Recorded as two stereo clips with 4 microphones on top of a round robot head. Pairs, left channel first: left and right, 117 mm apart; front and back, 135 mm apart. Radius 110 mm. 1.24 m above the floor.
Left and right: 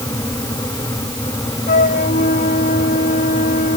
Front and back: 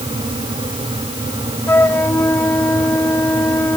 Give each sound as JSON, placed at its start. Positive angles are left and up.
{"t": 1.7, "sound": "a flute", "azimuth_deg": 75}